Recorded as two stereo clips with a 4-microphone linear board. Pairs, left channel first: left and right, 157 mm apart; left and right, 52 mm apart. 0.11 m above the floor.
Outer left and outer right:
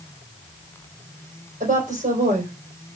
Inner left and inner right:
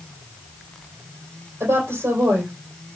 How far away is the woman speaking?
About 4 m.